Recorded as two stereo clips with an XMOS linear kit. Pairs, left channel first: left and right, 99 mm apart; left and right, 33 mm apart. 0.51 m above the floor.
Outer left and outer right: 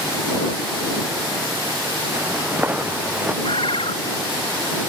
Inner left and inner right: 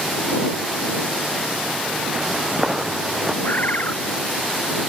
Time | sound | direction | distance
2.1 | footsteps | 20° right (ahead or behind) | ?
3.4 | a bird | 75° left (ahead or behind) | ?